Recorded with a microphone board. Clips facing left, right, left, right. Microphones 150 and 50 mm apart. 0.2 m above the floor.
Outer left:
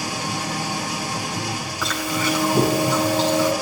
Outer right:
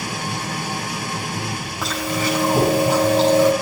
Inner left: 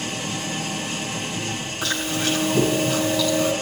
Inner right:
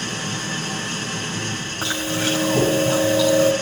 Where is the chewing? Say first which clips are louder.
Outer right 2 dB, inner right 1 dB; 35° right (ahead or behind), 5 m.